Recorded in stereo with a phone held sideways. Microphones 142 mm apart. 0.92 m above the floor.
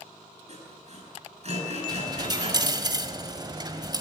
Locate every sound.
0.5 s sawing: 50° right (ahead or behind), 9.5 m
1.9 s a dropped coin: 30° right (ahead or behind), 1.4 m